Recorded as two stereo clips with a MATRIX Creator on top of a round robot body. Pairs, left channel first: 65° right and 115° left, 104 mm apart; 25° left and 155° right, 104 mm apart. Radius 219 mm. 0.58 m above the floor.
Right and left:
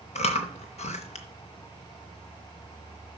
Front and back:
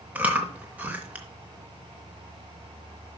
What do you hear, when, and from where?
0.1 s chewing: 80° right, 0.6 m